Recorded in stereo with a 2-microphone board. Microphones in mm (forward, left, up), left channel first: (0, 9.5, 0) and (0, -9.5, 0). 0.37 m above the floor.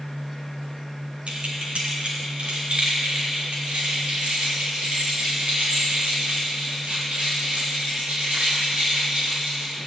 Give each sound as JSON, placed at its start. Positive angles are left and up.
{"t": 1.3, "sound": "keys jangling", "side_deg": -70, "distance_m": 2.5}